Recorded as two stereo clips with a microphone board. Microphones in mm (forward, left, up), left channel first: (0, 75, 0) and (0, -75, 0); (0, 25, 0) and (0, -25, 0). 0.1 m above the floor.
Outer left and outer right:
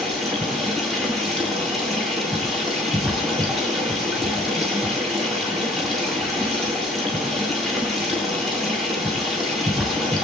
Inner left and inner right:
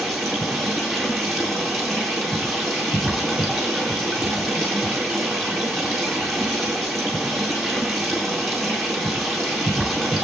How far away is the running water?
About 4 m.